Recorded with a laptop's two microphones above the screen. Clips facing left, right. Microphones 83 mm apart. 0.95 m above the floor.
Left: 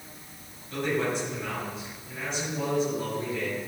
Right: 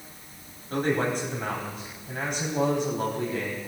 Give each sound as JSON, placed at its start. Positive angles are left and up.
{"t": 0.7, "sound": "a man speaking", "side_deg": -45, "distance_m": 4.5}